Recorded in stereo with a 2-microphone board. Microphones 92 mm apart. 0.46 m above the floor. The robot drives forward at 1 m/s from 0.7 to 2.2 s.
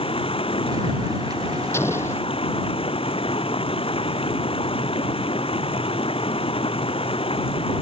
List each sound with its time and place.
0.0 s running water: 75° left (ahead or behind); by 7.8 s 80° left
1.7 s an explosion: 25° left (ahead or behind); by 2.2 s 30° left (ahead or behind)